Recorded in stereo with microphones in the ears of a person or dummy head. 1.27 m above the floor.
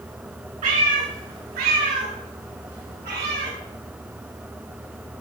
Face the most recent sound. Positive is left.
turn(degrees=-60)  # may be behind; listen again after turning